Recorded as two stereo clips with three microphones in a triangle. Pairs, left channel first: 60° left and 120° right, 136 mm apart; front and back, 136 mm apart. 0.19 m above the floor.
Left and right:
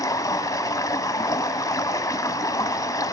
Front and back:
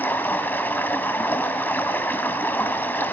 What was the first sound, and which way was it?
Running water, 55° left.